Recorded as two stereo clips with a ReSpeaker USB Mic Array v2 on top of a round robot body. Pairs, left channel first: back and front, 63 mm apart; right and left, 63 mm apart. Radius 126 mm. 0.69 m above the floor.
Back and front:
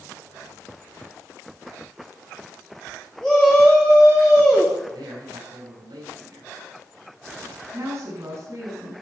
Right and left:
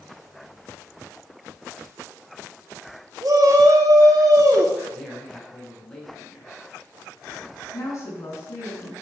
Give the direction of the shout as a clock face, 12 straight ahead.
9 o'clock.